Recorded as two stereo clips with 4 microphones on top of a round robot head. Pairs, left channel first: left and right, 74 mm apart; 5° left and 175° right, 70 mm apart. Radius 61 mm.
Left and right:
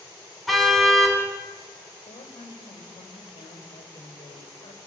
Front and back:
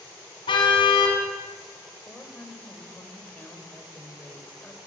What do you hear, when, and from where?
0.5 s a car horn: straight ahead, 4.5 m
2.1 s a woman speaking: 75° left, 4.5 m